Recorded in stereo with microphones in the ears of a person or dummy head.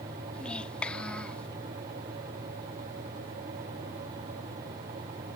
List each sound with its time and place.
0.3 s a child speaking: 5° left (ahead or behind)